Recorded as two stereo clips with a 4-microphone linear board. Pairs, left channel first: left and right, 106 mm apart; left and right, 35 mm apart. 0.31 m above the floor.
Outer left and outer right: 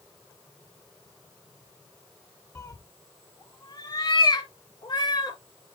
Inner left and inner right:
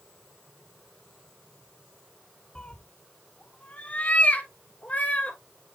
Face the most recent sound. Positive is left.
turn(degrees=40)  # may be behind; listen again after turning